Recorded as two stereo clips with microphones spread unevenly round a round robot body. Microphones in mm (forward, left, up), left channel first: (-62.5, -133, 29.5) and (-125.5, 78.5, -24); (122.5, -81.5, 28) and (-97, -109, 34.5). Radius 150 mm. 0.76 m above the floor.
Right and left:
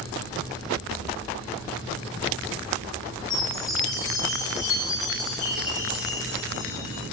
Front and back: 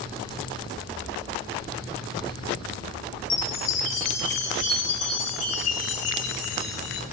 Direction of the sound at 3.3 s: 5° left.